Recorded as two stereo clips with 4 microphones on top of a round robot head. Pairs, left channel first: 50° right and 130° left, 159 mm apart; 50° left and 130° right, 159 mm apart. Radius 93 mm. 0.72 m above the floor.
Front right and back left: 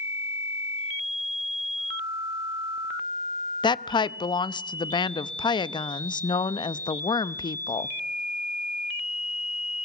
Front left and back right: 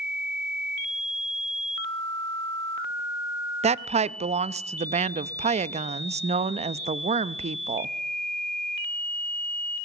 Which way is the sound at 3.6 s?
100° right.